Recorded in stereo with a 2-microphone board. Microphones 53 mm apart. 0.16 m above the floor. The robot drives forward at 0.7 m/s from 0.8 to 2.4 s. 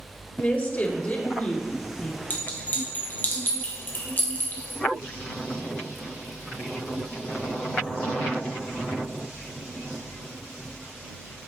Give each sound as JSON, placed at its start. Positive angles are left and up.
{"t": 0.4, "sound": "a woman speaking", "side_deg": 40, "distance_m": 2.0}
{"t": 2.3, "sound": "a clink", "side_deg": 35, "distance_m": 2.5}